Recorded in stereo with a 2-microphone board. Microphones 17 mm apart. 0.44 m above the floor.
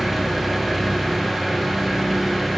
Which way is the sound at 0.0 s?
5° right (ahead or behind).